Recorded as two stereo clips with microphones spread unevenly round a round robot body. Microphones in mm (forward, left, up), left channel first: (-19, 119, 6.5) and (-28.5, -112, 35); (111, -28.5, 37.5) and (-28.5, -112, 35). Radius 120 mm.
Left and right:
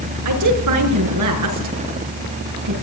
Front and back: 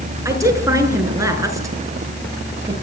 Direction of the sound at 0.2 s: 80° right.